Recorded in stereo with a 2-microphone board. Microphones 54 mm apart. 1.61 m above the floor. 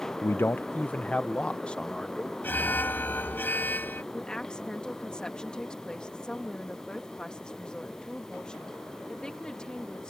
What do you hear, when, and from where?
0.2 s a man speaking: 55° left (ahead or behind); by 2.3 s 15° left (ahead or behind)
2.4 s an alarm: 40° left (ahead or behind)
4.1 s a woman speaking: 15° left (ahead or behind)